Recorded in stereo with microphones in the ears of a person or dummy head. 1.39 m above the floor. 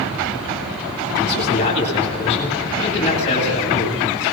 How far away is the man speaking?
About 9.5 m.